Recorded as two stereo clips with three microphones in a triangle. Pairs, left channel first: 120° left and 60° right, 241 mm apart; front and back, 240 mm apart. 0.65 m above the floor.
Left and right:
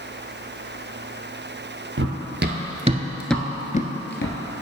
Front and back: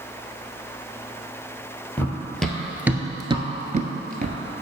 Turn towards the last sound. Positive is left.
turn(degrees=130)